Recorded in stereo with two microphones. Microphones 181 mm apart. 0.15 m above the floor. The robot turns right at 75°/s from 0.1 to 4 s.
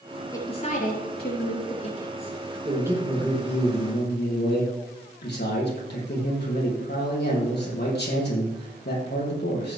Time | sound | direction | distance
0.3 | a woman speaking | 20° left | 3.5 m
2.6 | a man speaking | 30° right | 4.5 m